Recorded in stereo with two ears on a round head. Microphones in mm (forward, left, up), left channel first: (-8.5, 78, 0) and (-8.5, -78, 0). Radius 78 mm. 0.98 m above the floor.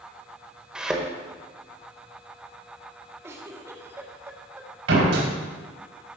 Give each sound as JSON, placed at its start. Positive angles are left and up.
{"t": 0.8, "sound": "a thud", "side_deg": -5, "distance_m": 1.4}
{"t": 3.2, "sound": "a giggle", "side_deg": -15, "distance_m": 1.5}
{"t": 4.9, "sound": "a door slam", "side_deg": -80, "distance_m": 3.5}